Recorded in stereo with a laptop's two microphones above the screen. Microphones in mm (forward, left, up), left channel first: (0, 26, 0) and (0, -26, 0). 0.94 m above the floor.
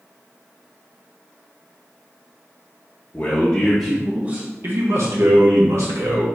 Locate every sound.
3.1 s a man speaking: 30° left (ahead or behind), 0.8 m; by 6.2 s 70° right (ahead or behind), 1.5 m